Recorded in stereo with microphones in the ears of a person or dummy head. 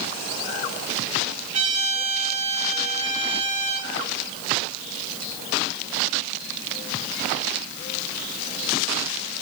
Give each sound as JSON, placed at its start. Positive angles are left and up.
{"t": 1.5, "sound": "a trumpet", "side_deg": -35, "distance_m": 3.0}